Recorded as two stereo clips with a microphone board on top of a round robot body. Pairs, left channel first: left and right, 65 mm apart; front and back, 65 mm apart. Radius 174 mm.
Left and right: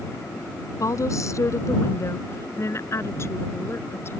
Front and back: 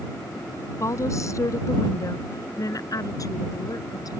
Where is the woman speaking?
45° left; by 4.2 s 35° left.